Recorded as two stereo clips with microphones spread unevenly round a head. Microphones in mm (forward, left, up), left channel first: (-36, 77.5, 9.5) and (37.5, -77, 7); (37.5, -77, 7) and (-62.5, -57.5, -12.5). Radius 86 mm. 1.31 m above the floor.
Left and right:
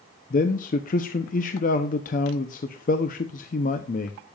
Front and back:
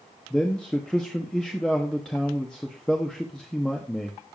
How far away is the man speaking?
About 0.8 m.